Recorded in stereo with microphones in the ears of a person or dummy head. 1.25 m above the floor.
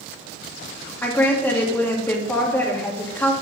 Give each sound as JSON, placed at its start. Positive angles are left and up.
{"t": 1.0, "sound": "a woman speaking", "side_deg": 5, "distance_m": 2.5}